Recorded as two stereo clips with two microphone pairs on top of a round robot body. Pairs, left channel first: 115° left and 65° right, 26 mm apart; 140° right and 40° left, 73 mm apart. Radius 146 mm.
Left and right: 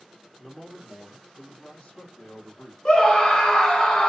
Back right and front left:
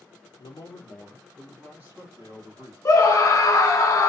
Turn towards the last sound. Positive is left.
turn(degrees=165)